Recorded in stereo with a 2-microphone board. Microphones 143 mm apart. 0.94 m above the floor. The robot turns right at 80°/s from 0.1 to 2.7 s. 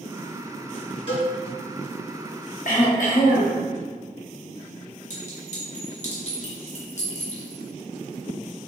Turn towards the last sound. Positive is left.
turn(degrees=55)  # may be behind; listen again after turning